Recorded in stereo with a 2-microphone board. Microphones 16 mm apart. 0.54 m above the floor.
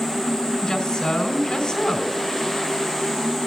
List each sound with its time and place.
0.6 s a woman speaking: 45° left (ahead or behind), 3.5 m